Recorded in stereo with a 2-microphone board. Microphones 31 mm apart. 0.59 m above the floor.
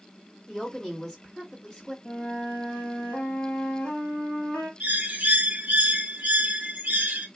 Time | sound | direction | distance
0.5 | a woman speaking | 15° left (ahead or behind) | 1.4 m
2.0 | a flute | 45° left (ahead or behind) | 1.4 m
4.8 | a bird | 65° right (ahead or behind) | 0.7 m